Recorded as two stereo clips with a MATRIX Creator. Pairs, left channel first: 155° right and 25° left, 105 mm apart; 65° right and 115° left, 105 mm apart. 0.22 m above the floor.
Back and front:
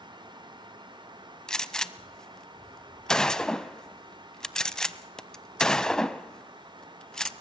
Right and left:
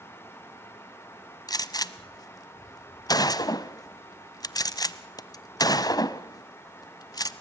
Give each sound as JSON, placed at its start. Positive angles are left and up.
{"t": 1.5, "sound": "a gunshot", "azimuth_deg": -80, "distance_m": 0.7}